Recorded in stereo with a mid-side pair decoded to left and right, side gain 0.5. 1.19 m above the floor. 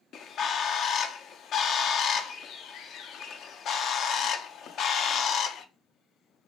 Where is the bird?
60° left, 0.6 m.